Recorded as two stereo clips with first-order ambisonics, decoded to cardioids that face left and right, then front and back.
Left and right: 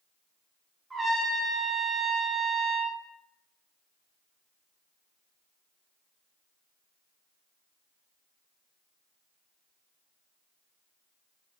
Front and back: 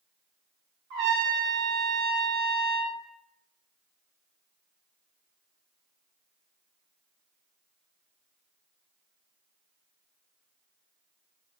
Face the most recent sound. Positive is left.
turn(degrees=-170)